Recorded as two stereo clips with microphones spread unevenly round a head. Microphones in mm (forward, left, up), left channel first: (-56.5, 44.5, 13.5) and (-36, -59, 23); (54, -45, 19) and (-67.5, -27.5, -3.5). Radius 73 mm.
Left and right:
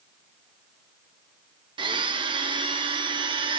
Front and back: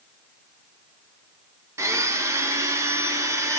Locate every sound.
1.8 s a blender: 120° right, 1.4 m